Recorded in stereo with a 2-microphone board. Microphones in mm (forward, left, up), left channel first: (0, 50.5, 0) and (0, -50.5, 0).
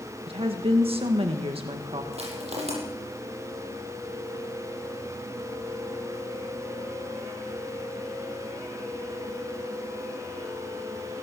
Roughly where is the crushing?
Right.